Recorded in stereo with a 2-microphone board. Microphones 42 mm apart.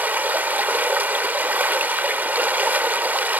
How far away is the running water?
About 0.9 m.